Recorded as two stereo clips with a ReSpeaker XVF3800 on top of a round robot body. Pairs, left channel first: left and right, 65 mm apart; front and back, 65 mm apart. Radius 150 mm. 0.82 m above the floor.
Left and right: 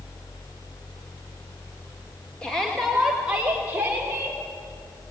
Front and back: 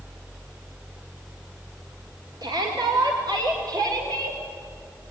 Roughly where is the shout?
Behind.